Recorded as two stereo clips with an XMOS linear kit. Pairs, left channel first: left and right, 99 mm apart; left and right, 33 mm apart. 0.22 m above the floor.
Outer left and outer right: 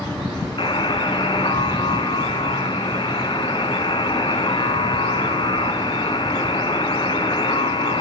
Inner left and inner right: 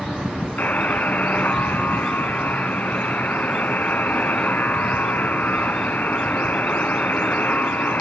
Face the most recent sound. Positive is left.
turn(degrees=60)  # may be behind; listen again after turning